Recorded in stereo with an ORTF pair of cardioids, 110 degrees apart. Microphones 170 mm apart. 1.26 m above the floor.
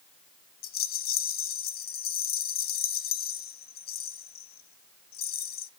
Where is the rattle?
60° left, 0.9 m.